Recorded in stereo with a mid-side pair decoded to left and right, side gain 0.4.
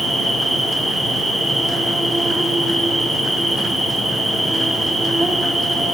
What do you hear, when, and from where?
0.0 s an insect: 15° right, 2 m